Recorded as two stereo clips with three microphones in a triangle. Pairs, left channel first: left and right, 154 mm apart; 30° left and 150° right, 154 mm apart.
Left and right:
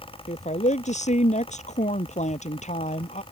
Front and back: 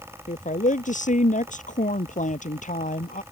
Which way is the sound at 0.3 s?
55° left.